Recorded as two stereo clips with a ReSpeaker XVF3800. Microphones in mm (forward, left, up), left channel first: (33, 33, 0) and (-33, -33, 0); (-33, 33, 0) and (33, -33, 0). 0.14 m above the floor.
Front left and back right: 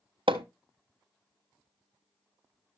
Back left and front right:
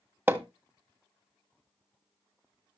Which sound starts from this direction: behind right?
Hammering, at 0.3 s.